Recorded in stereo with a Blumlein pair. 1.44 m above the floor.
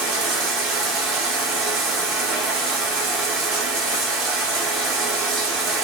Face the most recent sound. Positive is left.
turn(degrees=-25)